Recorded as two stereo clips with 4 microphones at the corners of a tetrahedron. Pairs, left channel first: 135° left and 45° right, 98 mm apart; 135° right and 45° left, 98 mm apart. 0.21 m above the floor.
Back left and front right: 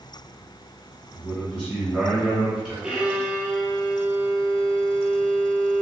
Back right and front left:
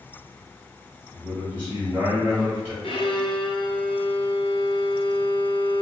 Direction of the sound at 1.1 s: 15° left.